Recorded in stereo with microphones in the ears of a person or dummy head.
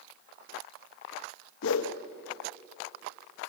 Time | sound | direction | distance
1.6 | a whoosh | 80° left | 1.1 m